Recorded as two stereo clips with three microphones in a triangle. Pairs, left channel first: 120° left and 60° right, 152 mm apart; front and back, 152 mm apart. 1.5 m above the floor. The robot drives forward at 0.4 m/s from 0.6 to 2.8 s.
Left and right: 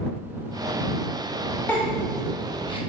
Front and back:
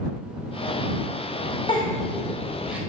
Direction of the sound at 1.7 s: 50° left.